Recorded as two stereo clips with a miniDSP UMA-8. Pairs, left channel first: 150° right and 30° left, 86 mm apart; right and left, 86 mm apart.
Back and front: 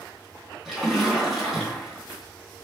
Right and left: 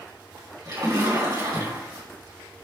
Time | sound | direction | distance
0.7 | a splash | 120° left | 2.5 m